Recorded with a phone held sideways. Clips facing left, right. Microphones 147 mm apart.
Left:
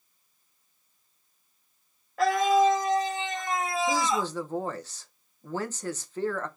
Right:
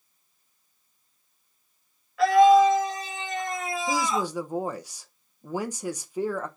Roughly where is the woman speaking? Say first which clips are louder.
Right 3 dB; centre.